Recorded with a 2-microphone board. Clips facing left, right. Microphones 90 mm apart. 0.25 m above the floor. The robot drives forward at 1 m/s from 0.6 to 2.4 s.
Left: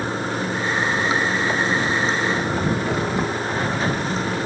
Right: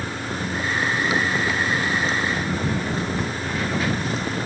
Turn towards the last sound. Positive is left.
turn(degrees=35)  # may be behind; listen again after turning